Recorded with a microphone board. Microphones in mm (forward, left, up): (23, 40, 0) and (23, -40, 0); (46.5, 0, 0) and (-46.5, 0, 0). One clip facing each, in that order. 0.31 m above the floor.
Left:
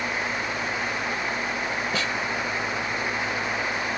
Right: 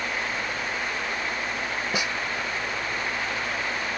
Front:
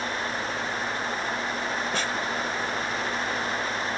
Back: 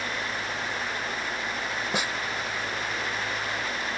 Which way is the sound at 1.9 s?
130° right.